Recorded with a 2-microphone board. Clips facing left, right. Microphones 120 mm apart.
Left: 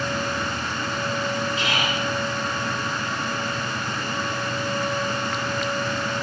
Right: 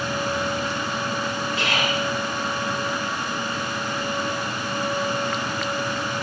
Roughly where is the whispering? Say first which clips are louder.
Right 1 dB; right.